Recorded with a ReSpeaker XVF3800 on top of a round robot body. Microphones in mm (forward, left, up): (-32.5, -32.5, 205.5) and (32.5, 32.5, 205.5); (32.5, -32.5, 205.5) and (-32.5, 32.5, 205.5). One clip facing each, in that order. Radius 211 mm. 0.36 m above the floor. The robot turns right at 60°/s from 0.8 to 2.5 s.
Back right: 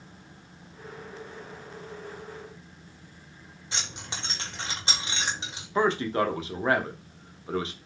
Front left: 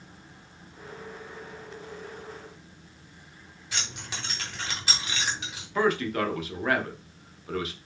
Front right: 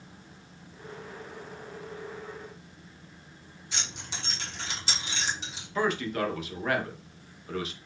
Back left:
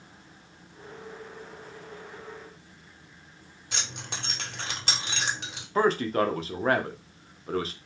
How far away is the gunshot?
No gunshot in this recording.